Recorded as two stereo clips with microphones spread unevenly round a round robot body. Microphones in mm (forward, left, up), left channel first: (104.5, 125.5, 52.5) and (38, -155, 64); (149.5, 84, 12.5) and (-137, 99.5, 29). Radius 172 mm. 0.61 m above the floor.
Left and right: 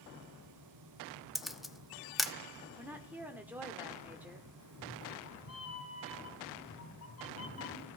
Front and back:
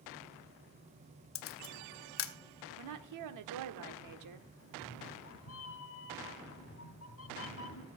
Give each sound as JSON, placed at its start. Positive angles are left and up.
{"t": 1.4, "sound": "a camera shutter", "azimuth_deg": -10, "distance_m": 1.0}
{"t": 2.8, "sound": "a woman speaking", "azimuth_deg": 170, "distance_m": 1.4}
{"t": 4.6, "sound": "a cat meowing", "azimuth_deg": 40, "distance_m": 2.0}